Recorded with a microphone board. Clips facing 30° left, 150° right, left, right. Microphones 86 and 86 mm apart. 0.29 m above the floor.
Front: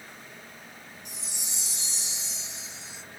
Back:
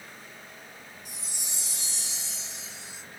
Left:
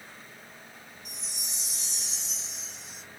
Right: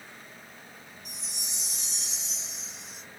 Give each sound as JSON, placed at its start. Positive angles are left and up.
{"t": 1.1, "sound": "a chime", "azimuth_deg": 0, "distance_m": 0.9}